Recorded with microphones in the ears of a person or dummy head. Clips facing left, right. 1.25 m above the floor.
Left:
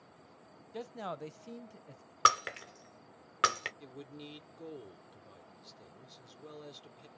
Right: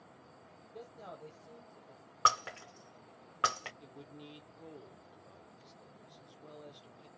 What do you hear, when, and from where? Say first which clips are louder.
0.7 s a man speaking: left 8 dB; 85° left, 0.6 m
2.2 s breaking glass: left 2 dB; 20° left (ahead or behind), 0.5 m
3.8 s a man speaking: left 3 dB; 25° left (ahead or behind), 0.8 m